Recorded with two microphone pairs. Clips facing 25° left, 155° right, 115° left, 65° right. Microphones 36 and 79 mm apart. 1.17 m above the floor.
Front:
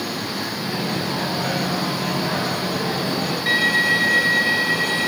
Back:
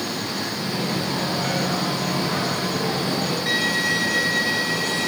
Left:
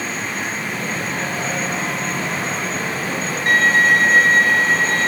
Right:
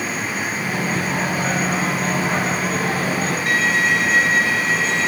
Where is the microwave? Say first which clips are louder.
Front 1 dB, right 2 dB; 35° right, 8.5 m.